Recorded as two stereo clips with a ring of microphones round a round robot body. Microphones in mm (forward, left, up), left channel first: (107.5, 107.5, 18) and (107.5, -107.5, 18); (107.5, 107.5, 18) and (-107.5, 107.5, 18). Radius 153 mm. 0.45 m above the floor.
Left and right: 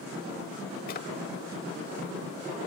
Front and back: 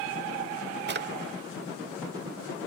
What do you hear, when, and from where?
0.9 s a drawer: 145° left